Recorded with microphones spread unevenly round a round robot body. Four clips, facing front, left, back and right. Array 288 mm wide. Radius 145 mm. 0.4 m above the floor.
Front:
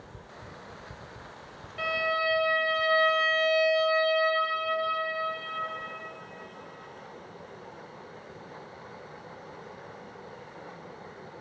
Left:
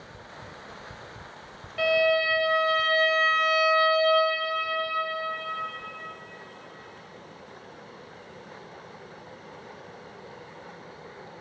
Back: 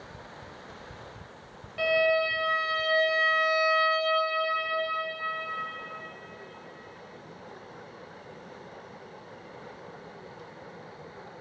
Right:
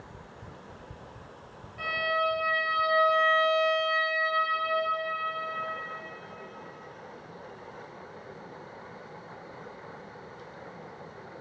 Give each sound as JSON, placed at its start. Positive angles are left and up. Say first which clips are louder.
{"t": 1.8, "sound": "a violin", "louder": "left 7 dB, back 5 dB", "azimuth_deg": 110, "distance_m": 3.0}